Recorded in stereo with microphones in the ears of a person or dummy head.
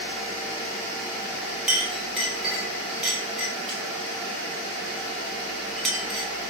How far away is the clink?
About 1.3 m.